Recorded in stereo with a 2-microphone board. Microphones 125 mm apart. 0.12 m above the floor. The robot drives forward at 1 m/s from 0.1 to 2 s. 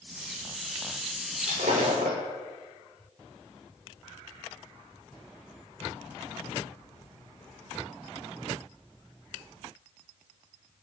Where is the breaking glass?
85° right, 6 m; by 2.2 s 80° right, 6 m.